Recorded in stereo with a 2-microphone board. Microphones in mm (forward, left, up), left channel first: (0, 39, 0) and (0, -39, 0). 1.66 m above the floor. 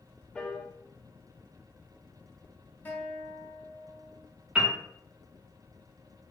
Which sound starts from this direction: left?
A guitar, at 2.9 s.